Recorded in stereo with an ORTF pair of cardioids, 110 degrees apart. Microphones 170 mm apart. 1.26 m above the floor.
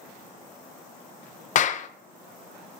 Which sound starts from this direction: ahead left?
A clap, at 1.6 s.